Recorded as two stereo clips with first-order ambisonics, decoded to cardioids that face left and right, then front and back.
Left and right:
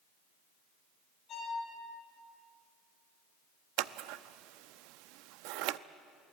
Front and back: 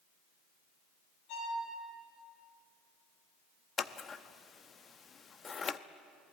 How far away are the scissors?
About 0.6 m.